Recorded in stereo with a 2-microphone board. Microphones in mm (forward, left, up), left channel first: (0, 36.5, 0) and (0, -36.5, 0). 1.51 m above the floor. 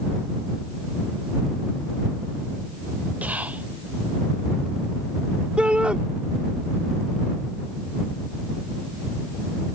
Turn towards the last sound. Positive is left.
turn(degrees=-15)  # may be behind; listen again after turning